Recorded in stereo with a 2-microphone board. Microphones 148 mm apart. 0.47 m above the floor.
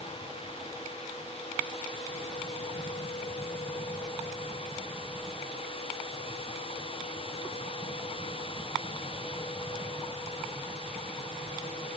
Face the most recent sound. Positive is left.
No sound to turn to.